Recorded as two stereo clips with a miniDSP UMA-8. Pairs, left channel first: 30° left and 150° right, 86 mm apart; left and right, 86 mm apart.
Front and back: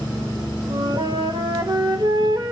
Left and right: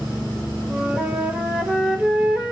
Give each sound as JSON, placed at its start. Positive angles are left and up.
{"t": 0.7, "sound": "a flute", "azimuth_deg": -170, "distance_m": 1.8}